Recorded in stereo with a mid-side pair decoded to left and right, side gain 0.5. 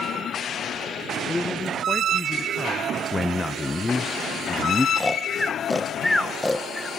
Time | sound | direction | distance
1.3 | a man speaking | 20° left | 1.3 m
3.1 | a man speaking | 20° left | 0.8 m
5.0 | snoring | 15° left | 1.6 m